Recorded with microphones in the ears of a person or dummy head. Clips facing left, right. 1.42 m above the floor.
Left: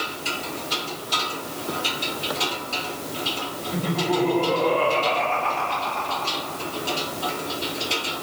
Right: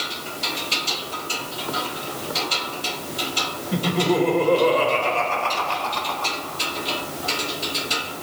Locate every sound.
3.7 s laughter: 55° right (ahead or behind), 6 m